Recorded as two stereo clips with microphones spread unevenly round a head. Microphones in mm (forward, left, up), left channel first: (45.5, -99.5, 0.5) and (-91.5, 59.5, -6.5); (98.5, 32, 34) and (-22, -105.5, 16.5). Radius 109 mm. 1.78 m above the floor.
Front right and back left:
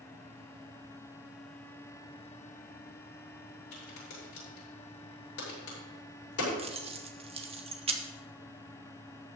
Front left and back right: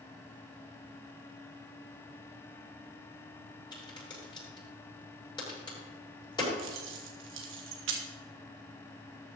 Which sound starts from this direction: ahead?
A crack, at 3.7 s.